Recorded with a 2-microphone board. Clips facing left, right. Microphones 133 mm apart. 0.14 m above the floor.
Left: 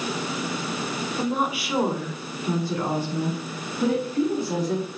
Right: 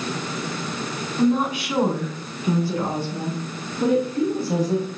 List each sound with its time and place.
1.2 s a woman speaking: 15° left (ahead or behind), 1.2 m; by 4.9 s 25° right (ahead or behind), 2.5 m